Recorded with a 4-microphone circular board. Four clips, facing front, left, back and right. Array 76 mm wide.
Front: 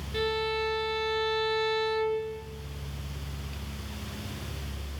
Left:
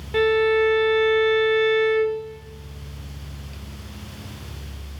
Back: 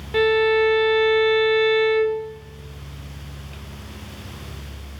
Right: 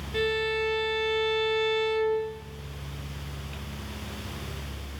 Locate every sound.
0.1 s a violin: 145° left, 1.2 m